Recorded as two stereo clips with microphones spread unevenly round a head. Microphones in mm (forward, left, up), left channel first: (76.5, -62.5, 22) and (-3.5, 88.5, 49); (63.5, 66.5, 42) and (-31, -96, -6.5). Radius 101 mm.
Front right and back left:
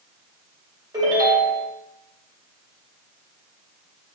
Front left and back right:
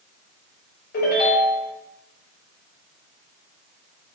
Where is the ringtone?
60° left, 1.7 m.